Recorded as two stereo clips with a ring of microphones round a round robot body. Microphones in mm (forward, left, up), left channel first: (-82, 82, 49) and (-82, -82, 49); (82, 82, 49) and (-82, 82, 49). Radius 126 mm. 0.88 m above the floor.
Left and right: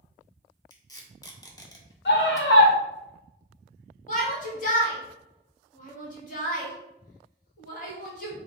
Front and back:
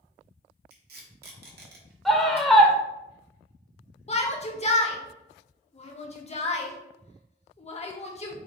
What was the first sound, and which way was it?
Tape being pulled, 160° left.